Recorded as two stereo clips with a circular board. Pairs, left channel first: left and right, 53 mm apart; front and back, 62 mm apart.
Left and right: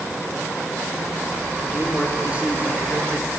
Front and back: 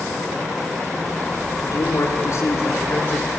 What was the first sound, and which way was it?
A man speaking, 10° right.